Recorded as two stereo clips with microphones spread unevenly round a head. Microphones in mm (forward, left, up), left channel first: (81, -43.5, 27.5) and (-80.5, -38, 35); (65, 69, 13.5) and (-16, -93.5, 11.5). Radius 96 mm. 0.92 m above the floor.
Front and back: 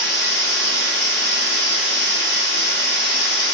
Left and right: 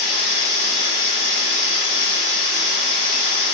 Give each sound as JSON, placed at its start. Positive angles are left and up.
{"t": 0.0, "sound": "a machine running", "azimuth_deg": 35, "distance_m": 1.7}